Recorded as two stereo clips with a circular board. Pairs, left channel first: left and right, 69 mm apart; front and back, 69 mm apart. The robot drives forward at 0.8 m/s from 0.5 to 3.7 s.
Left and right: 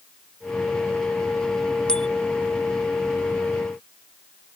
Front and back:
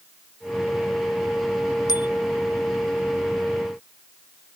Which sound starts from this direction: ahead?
A bicycle bell, at 1.9 s.